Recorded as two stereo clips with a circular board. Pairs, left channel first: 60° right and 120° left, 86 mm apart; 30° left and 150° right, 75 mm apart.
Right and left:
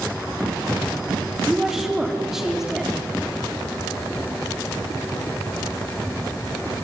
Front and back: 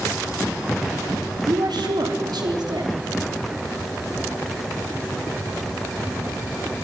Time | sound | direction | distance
1.5 | a woman speaking | 155° right | 3.5 m